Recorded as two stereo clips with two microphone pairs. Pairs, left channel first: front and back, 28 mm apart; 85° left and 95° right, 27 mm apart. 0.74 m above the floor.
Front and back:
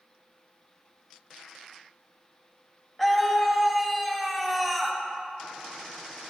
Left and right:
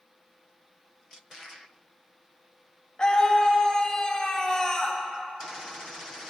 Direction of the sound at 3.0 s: 95° left.